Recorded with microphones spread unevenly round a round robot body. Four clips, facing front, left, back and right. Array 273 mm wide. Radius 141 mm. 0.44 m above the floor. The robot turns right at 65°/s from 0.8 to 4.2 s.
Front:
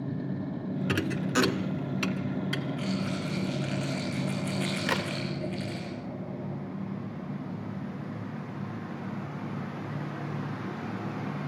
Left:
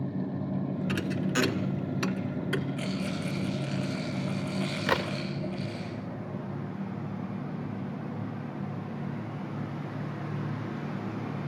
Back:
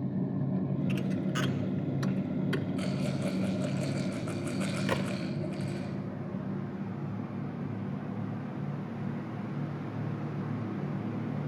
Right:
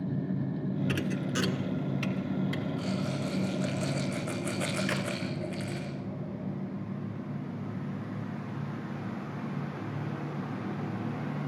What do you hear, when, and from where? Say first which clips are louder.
0.9 s a thud: left 2 dB, front 3 dB; 10° right, 1.4 m; by 2.7 s 105° left, 1.4 m
2.8 s a rattle: even, front 1 dB; 145° left, 5.5 m; by 5.9 s 120° right, 5.5 m
4.9 s a crack: left 4 dB, front 1 dB; 95° left, 1.4 m